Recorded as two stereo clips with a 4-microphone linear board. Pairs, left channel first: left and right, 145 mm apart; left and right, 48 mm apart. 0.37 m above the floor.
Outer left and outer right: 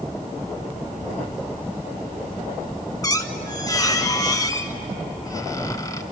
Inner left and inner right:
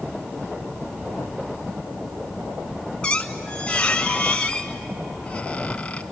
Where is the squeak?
25° left (ahead or behind), 1.1 m.